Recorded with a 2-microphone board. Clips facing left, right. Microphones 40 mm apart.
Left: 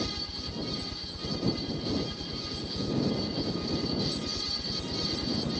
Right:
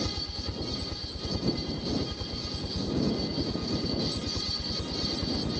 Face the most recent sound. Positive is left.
turn(degrees=-30)  # may be behind; listen again after turning